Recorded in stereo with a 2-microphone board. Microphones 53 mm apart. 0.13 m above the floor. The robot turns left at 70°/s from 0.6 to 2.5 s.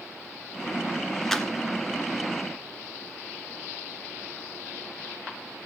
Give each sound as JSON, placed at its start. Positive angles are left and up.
{"t": 1.3, "sound": "a clap", "side_deg": 5, "distance_m": 1.5}